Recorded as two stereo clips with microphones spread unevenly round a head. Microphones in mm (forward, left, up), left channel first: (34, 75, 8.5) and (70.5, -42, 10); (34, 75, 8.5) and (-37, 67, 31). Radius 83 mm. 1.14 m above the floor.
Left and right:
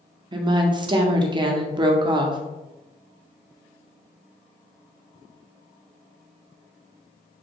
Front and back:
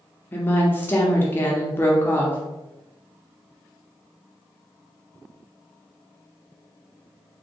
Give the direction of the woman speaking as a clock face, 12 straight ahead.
1 o'clock.